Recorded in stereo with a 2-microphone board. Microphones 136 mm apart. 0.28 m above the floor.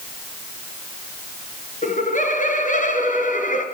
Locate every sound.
1.8 s laughter: 70° left (ahead or behind), 5.5 m